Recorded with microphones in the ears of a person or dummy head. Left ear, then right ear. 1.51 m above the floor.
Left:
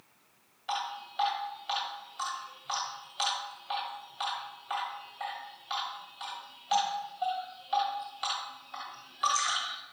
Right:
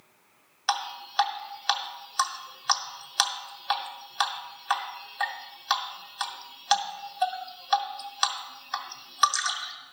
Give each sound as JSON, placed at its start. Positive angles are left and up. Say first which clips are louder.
{"t": 0.7, "sound": "dripping", "louder": "right 5 dB", "side_deg": -55, "distance_m": 1.6}